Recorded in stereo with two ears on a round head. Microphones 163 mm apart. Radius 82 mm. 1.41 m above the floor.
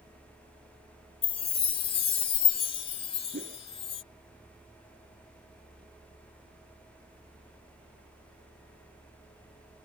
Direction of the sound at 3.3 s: 45° right (ahead or behind).